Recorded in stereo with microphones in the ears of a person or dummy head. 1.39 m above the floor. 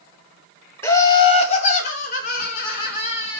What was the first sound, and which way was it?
Laughter, 15° left (ahead or behind).